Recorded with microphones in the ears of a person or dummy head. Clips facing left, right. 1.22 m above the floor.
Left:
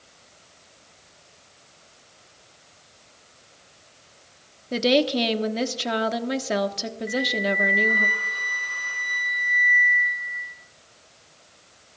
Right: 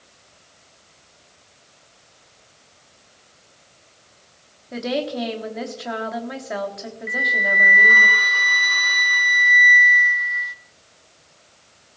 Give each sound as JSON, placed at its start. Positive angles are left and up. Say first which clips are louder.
{"t": 4.7, "sound": "a woman speaking", "louder": "left 4 dB", "side_deg": 40, "distance_m": 1.2}
{"t": 7.1, "sound": "a flute", "louder": "left 4 dB", "side_deg": -60, "distance_m": 0.7}